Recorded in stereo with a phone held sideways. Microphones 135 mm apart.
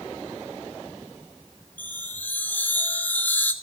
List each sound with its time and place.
1.8 s a chime: 15° left (ahead or behind), 1.5 m